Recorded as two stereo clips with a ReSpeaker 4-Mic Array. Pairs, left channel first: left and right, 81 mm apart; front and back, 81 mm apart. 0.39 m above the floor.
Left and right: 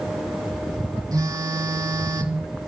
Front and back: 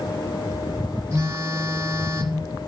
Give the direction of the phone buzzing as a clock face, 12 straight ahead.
4 o'clock.